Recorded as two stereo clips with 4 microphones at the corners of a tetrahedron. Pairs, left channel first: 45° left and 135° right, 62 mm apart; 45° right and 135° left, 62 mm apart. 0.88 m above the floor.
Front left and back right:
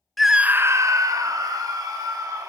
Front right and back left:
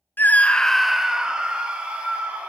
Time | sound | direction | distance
0.2 | a scream | 40° right | 0.5 m